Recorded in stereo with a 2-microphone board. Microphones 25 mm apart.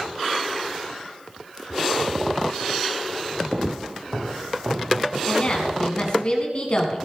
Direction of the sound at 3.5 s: 40° right (ahead or behind).